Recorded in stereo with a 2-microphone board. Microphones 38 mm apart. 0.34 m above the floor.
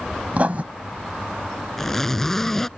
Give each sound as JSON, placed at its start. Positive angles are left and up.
{"t": 0.3, "sound": "writing", "side_deg": -40}
{"t": 1.8, "sound": "a zipper", "side_deg": 10}